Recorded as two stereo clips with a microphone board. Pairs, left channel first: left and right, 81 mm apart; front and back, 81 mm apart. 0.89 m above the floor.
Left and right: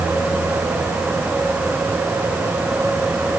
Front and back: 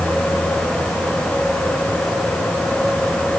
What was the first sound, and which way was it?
Only background noise.